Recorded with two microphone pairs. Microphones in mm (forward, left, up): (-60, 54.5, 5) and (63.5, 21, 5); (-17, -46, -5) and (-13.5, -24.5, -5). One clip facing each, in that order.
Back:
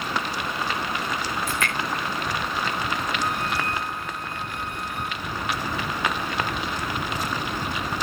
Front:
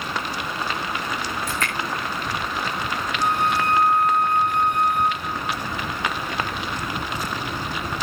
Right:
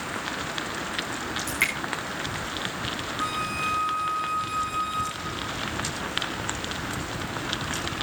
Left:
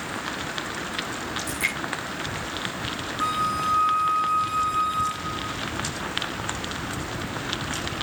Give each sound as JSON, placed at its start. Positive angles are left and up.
{"t": 1.5, "sound": "dripping", "azimuth_deg": -65, "distance_m": 9.5}
{"t": 3.2, "sound": "a flute", "azimuth_deg": -15, "distance_m": 4.0}